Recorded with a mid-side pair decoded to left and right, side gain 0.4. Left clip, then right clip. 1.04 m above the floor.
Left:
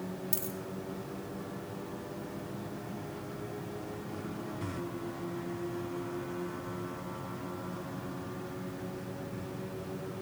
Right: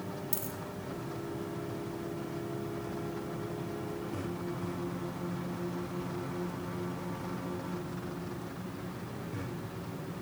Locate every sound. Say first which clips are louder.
0.3 s a dropped coin: left 1 dB; 10° left, 2.0 m